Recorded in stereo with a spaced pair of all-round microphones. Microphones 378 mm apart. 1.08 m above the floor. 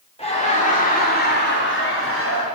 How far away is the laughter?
About 3 m.